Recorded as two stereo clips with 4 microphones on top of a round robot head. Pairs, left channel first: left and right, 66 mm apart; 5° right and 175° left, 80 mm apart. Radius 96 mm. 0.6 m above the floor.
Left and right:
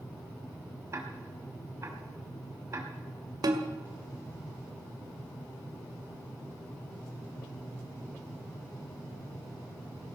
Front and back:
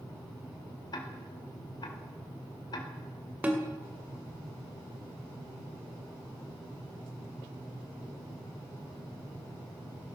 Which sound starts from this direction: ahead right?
Ticking, at 0.9 s.